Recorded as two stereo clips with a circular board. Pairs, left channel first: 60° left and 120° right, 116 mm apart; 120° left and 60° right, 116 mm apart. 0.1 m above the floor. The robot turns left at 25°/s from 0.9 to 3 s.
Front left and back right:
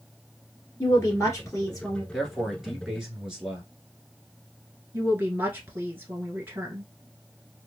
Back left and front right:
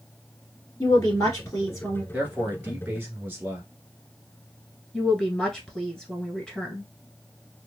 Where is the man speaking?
30° right, 1.1 m; by 3.7 s 50° right, 1.1 m.